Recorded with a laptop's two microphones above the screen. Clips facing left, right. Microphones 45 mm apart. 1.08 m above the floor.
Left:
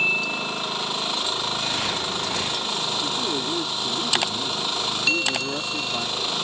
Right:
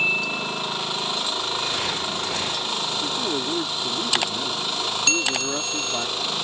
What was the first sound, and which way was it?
A man speaking, 15° right (ahead or behind).